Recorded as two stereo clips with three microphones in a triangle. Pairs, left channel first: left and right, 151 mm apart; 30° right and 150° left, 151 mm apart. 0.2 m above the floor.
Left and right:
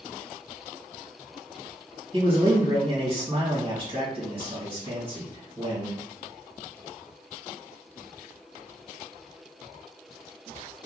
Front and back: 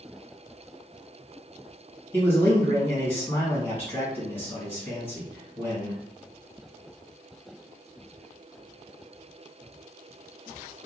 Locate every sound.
2.1 s a man speaking: 95° right, 2.0 m